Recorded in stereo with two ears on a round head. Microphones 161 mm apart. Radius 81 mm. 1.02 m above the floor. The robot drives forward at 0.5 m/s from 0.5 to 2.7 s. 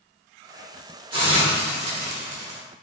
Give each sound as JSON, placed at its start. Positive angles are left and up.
{"t": 1.1, "sound": "a hiss", "side_deg": -30, "distance_m": 0.9}